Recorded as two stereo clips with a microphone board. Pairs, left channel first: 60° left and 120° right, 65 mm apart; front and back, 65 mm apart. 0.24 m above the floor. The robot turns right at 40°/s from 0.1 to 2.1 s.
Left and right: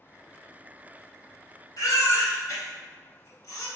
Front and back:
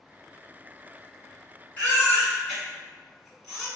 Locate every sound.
1.8 s a baby crying: 65° left, 1.4 m; by 3.7 s 80° left, 1.4 m